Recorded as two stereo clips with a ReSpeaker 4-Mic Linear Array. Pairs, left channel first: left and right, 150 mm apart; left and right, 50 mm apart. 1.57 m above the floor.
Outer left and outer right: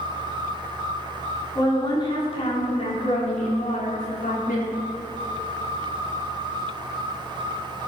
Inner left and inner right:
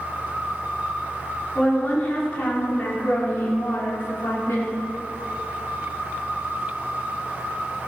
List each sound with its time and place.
1.6 s a woman speaking: 25° left (ahead or behind), 5 m; by 4.8 s 65° left (ahead or behind), 5.5 m